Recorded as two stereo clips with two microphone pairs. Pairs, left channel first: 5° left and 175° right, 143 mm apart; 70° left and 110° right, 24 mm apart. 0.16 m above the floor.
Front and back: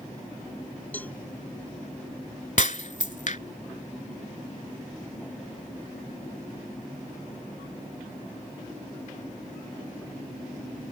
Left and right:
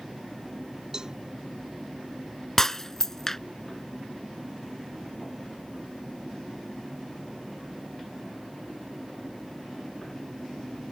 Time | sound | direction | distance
0.9 | a cowbell | 65° right | ?
2.6 | breaking glass | straight ahead | ?